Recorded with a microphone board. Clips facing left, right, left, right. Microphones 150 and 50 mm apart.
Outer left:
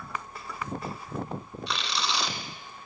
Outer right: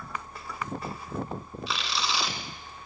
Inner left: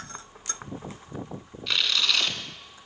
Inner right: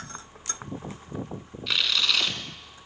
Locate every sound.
1.7 s tearing paper: centre (ahead or behind), 2.5 m